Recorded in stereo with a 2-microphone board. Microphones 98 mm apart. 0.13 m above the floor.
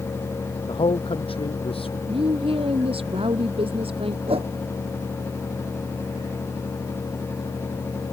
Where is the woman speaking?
75° right (ahead or behind).